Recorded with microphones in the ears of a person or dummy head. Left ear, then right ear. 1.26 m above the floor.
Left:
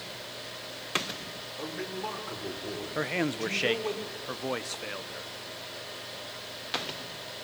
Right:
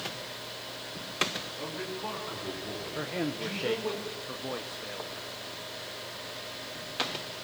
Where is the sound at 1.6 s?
85° left, 5 m.